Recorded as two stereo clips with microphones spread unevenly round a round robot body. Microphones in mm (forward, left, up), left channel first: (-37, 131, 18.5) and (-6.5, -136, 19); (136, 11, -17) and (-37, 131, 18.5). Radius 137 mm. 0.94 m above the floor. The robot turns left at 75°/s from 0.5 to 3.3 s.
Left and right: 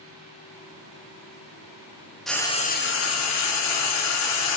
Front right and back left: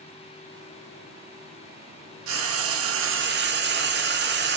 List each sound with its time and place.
2.3 s frying: 175° right, 1.4 m; by 4.6 s 110° left, 1.4 m